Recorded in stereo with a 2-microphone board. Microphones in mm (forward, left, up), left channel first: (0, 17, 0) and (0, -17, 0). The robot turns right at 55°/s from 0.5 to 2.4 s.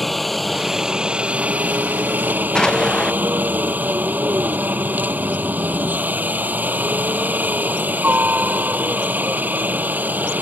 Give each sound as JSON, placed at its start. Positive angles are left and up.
{"t": 0.0, "sound": "a helicopter", "azimuth_deg": 175}
{"t": 2.5, "sound": "an explosion", "side_deg": 20}